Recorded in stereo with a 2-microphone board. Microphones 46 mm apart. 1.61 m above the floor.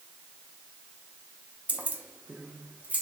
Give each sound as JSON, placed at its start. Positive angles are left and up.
{"t": 1.7, "sound": "keys jangling", "side_deg": -35, "distance_m": 0.5}